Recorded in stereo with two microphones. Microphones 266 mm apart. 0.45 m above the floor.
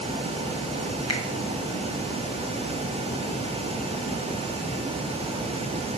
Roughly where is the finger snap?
Left.